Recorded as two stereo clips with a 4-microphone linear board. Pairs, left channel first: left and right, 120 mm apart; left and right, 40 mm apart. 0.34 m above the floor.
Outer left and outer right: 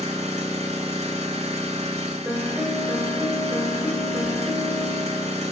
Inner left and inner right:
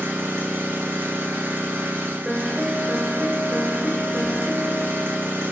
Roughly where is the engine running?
Right.